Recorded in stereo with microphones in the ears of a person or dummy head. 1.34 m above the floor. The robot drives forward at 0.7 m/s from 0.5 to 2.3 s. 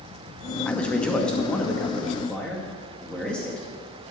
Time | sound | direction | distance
0.7 | a man speaking | 5° left (ahead or behind) | 0.9 m